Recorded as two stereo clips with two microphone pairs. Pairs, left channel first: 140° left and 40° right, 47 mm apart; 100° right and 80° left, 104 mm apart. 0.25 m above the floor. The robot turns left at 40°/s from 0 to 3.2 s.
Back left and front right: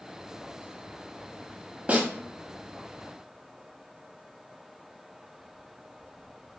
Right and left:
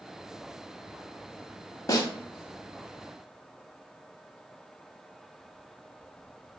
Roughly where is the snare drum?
Right.